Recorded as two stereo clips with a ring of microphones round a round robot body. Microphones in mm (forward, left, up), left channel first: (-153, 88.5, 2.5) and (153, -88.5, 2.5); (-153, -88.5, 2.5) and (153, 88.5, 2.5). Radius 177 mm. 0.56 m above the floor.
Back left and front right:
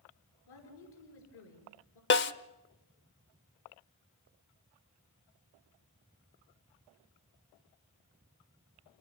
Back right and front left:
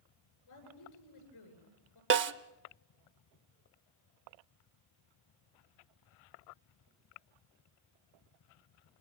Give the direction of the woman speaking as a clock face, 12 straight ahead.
6 o'clock.